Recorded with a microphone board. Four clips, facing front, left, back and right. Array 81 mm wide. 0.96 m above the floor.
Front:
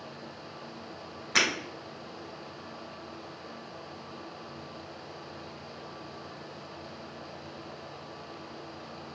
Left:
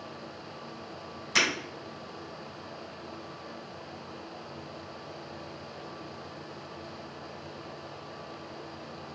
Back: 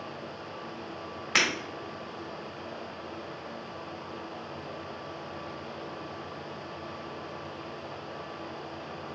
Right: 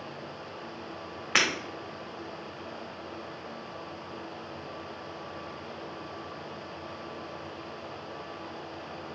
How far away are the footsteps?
I don't hear footsteps.